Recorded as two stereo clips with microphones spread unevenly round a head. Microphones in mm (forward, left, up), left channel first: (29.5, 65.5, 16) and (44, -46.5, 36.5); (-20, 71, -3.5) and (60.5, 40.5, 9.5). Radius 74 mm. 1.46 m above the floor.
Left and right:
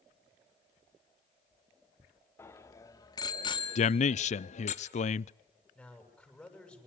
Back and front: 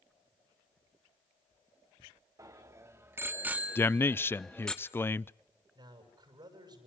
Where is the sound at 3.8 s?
95° left, 0.5 m.